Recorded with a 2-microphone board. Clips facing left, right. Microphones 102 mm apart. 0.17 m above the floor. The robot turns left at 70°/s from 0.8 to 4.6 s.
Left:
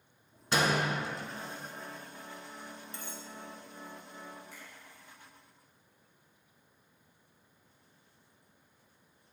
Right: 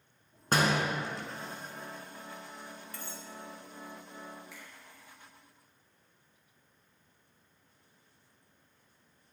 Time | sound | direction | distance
0.5 | a door slam | 45° right (ahead or behind) | 1.6 m
2.9 | cutlery clinking | 20° left (ahead or behind) | 0.8 m
4.5 | a finger snap | 45° left (ahead or behind) | 3 m